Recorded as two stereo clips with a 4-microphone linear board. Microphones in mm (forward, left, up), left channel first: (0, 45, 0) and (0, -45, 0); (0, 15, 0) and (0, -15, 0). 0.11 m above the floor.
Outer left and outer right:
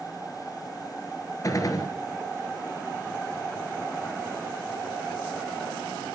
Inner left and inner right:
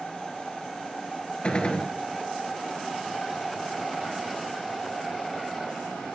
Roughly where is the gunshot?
Left.